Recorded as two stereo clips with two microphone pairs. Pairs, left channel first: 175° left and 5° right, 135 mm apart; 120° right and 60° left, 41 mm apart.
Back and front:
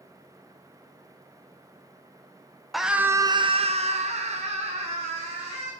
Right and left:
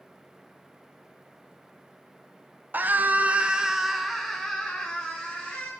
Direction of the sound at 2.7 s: 85° left.